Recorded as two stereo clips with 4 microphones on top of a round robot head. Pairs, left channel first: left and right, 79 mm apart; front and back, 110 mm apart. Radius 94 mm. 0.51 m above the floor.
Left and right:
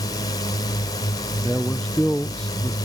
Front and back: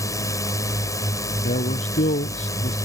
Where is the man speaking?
5° left.